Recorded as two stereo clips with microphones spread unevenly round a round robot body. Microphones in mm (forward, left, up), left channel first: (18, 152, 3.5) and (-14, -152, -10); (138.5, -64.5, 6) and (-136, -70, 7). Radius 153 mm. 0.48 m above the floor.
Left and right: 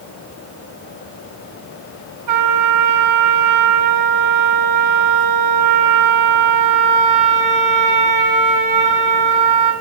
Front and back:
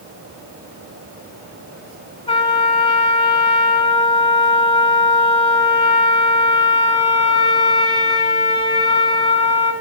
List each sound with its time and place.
2.3 s a trumpet: 70° right, 5.5 m